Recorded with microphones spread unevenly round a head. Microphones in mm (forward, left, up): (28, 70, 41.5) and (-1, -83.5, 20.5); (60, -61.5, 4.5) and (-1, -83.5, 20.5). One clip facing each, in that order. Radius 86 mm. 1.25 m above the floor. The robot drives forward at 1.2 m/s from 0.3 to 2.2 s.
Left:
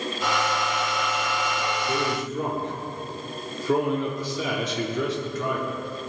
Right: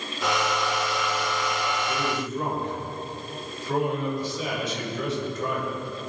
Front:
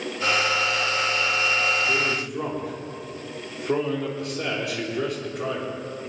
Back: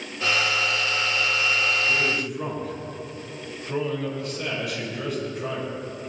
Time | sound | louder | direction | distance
1.9 | a man speaking | left 2 dB, even | 65° left | 4 m